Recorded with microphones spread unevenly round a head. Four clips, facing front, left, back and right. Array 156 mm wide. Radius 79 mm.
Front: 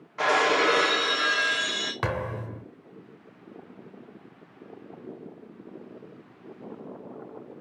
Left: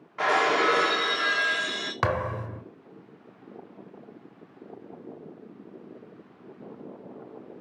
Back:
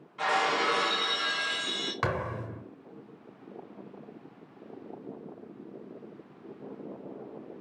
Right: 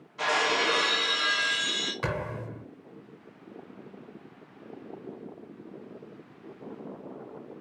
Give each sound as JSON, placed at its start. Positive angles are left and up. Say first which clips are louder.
{"t": 0.2, "sound": "breaking glass", "louder": "left 4 dB, front 5 dB", "azimuth_deg": 30, "distance_m": 2.5}
{"t": 2.0, "sound": "a thud", "louder": "left 7 dB, front 1 dB", "azimuth_deg": 70, "distance_m": 2.0}